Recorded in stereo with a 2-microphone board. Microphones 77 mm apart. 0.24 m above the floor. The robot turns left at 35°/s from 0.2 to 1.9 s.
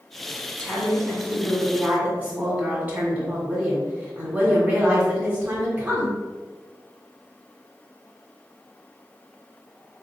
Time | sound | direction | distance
0.6 | a woman speaking | 20° left | 1.9 m